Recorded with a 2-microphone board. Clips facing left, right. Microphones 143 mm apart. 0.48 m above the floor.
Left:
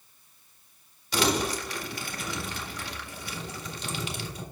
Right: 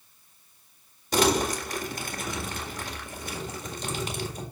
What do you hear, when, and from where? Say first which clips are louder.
1.1 s crumpling: right 3 dB; 45° right (ahead or behind), 1.8 m